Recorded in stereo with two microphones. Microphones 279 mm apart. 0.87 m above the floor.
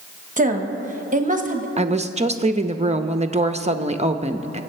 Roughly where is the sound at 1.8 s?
Right.